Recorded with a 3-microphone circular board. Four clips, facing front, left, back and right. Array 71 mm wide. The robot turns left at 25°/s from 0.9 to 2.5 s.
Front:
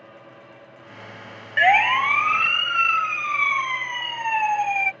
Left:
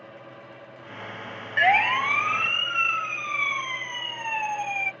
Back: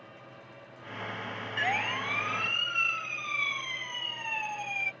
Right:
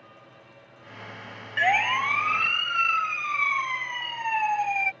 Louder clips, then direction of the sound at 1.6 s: Left 2 dB, front 14 dB; 15° left.